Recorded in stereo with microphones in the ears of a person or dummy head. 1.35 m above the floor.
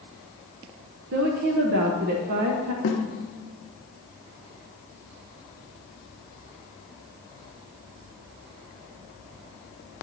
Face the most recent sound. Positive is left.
turn(degrees=70)  # may be behind; listen again after turning